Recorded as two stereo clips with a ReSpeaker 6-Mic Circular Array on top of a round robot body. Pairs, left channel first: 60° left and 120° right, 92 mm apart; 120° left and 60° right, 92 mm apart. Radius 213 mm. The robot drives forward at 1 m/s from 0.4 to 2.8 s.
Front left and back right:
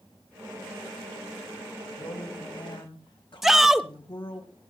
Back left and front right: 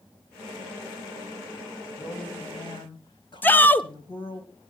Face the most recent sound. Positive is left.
turn(degrees=155)